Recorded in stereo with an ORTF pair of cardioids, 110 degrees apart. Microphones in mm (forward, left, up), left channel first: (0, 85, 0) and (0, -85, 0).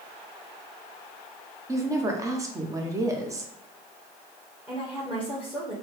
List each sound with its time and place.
1.7 s a woman speaking: 20° right, 0.9 m
4.7 s a woman speaking: 5° right, 1.1 m